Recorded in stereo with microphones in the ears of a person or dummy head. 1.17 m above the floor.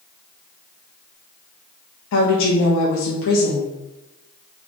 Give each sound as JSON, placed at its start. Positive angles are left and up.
{"t": 2.1, "sound": "a woman speaking", "side_deg": 65, "distance_m": 0.5}